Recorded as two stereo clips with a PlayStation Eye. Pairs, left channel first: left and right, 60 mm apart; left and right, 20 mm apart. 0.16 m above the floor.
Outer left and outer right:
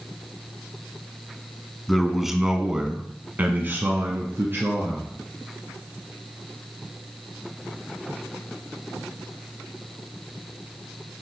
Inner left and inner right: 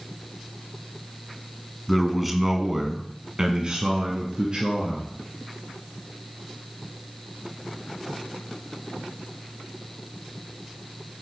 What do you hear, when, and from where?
1.9 s a man speaking: centre (ahead or behind), 1.4 m; by 5.1 s 45° right (ahead or behind), 2 m